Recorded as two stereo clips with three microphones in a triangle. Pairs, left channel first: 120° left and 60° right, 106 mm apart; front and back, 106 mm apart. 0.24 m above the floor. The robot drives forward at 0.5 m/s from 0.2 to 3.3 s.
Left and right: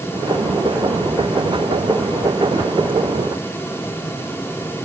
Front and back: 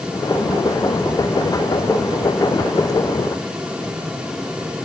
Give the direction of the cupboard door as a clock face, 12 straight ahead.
I don't hear a cupboard door.